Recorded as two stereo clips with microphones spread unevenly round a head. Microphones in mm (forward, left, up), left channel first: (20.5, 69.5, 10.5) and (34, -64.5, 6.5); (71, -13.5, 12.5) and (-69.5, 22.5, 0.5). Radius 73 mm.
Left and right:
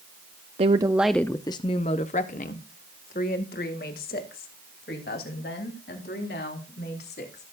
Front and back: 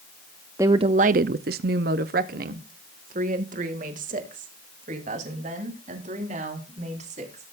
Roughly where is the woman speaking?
Behind right.